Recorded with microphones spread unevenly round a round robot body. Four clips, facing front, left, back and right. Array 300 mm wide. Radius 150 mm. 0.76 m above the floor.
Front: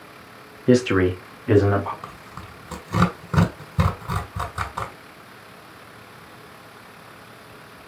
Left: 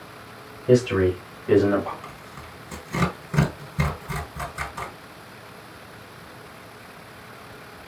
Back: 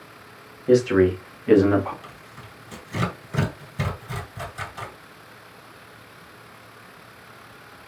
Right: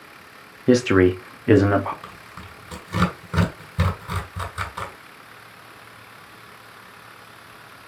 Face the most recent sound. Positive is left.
turn(degrees=-5)